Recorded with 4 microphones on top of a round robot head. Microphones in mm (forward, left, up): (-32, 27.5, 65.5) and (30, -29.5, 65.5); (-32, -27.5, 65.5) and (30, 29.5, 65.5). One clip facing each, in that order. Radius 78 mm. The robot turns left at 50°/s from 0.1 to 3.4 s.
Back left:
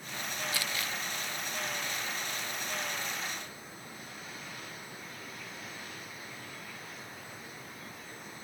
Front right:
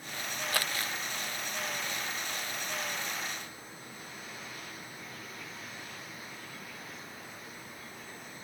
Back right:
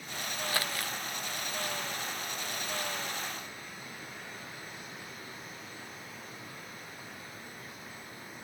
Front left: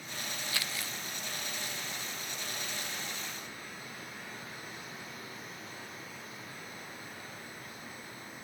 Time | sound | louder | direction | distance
0.5 | crumpling | front right 5 dB, back right 6 dB | 85° right | ?